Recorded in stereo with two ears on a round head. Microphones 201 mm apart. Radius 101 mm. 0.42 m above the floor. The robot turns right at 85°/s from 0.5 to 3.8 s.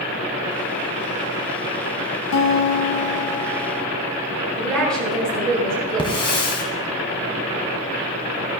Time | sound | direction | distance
2.3 | a guitar | 75° left | 1.0 m
4.6 | a woman speaking | 5° left (ahead or behind) | 6.5 m
6.0 | a hiss | 25° left (ahead or behind) | 2 m